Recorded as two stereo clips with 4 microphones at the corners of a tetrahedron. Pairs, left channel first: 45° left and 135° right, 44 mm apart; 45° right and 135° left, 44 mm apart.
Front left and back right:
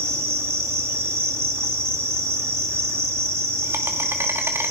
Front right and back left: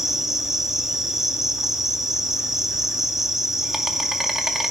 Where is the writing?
I don't hear writing.